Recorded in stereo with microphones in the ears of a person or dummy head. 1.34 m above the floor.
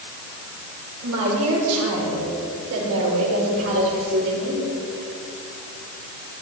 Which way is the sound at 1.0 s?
85° right.